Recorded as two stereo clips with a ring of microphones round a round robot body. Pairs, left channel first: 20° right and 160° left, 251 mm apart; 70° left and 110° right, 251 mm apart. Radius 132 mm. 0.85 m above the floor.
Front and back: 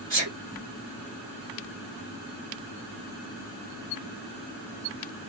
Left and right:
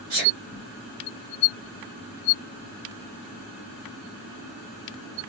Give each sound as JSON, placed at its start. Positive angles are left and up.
{"t": 0.1, "sound": "a sneeze", "azimuth_deg": -140, "distance_m": 1.6}